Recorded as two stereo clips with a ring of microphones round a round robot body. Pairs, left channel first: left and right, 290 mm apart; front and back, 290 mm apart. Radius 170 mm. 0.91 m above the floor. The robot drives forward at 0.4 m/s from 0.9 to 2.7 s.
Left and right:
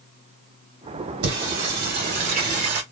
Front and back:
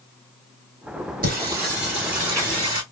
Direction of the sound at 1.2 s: 120° right.